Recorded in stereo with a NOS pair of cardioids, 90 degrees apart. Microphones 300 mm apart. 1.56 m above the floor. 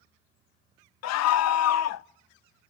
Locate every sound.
1.0 s a scream: 65° left, 0.6 m